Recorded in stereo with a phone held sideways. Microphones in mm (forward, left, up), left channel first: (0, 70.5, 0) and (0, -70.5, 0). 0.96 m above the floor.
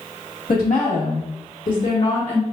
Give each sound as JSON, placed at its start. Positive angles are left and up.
{"t": 0.5, "sound": "a woman speaking", "side_deg": 85, "distance_m": 1.5}